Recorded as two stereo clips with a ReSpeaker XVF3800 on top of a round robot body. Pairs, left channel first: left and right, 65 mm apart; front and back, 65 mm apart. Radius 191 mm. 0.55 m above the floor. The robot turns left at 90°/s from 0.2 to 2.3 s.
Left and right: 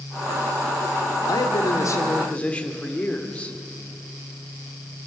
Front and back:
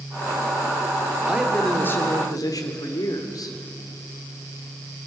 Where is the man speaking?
115° left, 3 m; by 3.6 s 20° left, 3 m.